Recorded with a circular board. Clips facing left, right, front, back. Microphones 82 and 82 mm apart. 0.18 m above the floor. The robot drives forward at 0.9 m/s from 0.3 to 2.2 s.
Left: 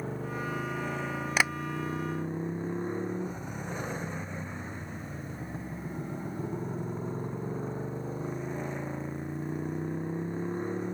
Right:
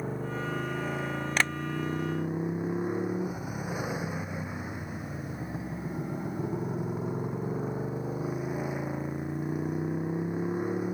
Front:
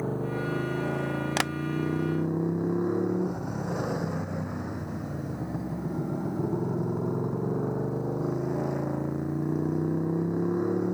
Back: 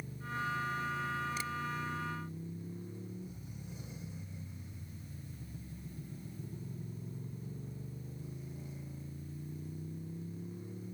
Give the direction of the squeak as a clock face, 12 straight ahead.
I don't hear a squeak.